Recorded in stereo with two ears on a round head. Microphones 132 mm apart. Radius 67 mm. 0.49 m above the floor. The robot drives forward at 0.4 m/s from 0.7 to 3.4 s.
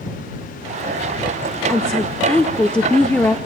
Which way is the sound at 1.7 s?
5° left (ahead or behind).